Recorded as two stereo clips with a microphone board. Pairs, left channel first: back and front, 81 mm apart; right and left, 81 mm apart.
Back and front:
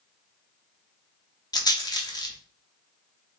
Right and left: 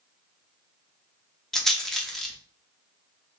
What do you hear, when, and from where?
1.5 s a rattle: 175° right, 0.6 m